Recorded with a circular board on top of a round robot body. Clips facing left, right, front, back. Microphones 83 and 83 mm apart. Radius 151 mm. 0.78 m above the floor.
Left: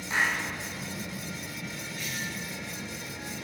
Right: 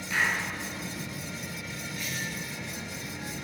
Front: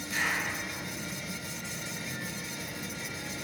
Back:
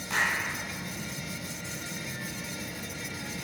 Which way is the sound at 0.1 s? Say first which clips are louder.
Even, back 3 dB; 155° left.